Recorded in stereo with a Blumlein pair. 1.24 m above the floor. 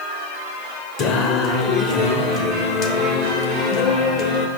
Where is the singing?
35° left, 0.8 m.